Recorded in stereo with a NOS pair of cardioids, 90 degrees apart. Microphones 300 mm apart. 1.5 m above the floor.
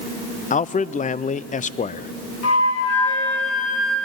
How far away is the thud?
I don't hear a thud.